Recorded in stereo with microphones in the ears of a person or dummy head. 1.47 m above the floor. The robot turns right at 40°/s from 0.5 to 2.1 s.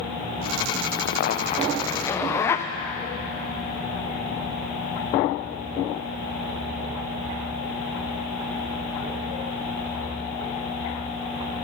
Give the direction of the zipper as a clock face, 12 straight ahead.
8 o'clock.